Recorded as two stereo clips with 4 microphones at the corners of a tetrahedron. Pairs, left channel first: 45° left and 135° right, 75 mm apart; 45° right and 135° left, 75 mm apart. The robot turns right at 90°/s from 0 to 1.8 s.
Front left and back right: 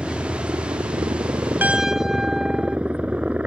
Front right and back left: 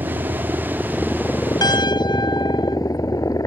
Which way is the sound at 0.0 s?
140° left.